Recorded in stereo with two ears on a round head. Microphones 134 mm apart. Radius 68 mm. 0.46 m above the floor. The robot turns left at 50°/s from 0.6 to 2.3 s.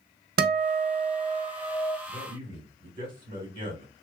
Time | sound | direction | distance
0.4 | a guitar | 105° right | 0.5 m
2.1 | a man speaking | 35° right (ahead or behind) | 1.6 m